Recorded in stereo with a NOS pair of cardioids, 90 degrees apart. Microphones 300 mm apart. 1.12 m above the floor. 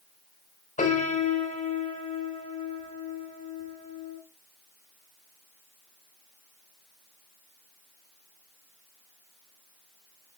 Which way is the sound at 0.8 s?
25° left.